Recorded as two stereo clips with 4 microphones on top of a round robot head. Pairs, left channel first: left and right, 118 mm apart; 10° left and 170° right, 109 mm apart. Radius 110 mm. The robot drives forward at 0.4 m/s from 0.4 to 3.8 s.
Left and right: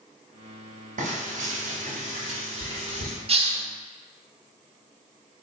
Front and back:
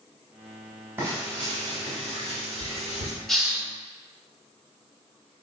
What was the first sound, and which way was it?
Frying, 100° right.